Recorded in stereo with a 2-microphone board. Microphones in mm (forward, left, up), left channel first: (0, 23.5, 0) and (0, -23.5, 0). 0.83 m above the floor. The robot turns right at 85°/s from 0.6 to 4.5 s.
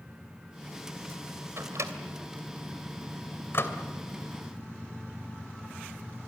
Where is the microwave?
60° right (ahead or behind), 2.5 m; by 3.8 s 65° left (ahead or behind), 2.5 m.